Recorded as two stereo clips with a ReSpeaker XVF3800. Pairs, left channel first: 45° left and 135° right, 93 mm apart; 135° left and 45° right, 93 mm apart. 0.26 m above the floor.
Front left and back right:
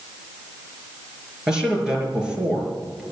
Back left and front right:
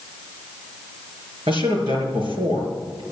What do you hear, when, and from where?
1.5 s a man speaking: 50° right, 5 m